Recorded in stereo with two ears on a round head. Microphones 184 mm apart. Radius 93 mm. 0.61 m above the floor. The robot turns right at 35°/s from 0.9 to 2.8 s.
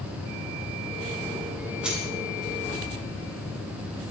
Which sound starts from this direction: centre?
Keys jangling, at 1.8 s.